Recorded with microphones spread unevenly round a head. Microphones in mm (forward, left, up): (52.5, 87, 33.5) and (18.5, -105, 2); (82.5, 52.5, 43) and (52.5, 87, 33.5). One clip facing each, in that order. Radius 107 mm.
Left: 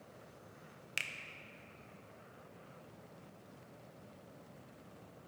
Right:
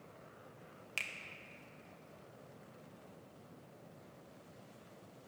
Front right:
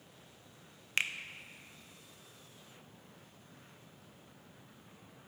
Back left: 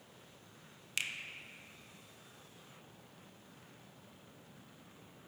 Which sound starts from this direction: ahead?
A finger snap, at 1.0 s.